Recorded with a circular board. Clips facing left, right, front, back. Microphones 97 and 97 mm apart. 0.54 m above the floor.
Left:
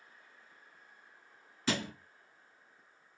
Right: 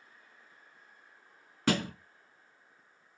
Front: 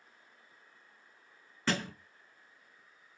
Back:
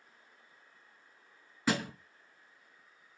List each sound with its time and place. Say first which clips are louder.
1.7 s a thud: right 5 dB, back 2 dB; 100° right, 0.7 m